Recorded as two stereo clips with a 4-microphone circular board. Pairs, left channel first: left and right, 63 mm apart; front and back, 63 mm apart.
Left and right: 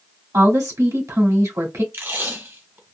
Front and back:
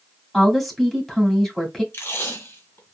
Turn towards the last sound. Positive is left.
turn(degrees=-45)